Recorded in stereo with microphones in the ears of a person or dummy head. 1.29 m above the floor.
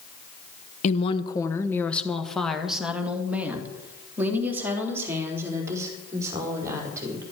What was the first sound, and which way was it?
A woman speaking, 40° left (ahead or behind).